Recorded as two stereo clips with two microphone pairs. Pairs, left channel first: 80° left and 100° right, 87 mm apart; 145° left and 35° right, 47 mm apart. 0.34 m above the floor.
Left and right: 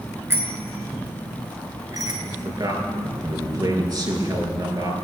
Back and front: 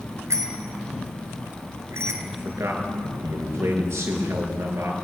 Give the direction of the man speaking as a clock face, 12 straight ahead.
2 o'clock.